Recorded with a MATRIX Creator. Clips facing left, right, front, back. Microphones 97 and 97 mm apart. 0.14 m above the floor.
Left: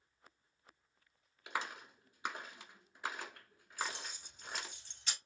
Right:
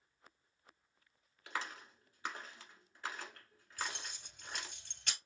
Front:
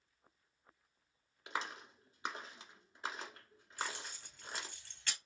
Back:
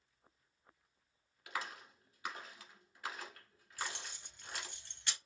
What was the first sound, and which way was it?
A clap, 35° left.